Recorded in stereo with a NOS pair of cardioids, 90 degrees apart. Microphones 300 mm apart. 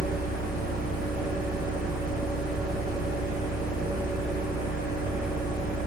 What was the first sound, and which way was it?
A fan, 30° right.